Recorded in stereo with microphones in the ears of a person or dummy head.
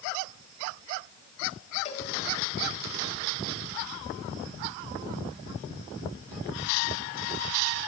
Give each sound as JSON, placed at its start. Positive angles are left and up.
{"t": 1.9, "sound": "a cowbell", "side_deg": 35, "distance_m": 3.5}